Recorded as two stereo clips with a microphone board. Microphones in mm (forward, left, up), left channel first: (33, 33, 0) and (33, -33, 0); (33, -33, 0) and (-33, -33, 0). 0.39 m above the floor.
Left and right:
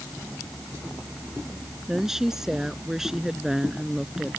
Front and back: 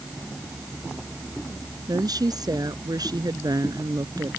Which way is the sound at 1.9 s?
175° right.